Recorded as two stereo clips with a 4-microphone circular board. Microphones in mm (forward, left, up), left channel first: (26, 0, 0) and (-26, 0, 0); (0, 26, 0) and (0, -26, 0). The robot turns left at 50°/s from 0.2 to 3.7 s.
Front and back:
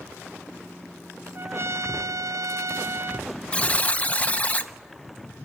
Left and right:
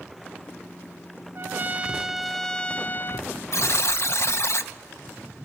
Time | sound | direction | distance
1.4 | a trumpet | 135° right | 0.6 m
3.5 | a buzzer | 70° left | 0.8 m